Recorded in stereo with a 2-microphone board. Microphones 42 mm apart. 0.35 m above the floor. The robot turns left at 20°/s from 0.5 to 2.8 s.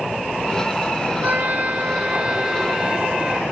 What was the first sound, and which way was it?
A trumpet, 135° right.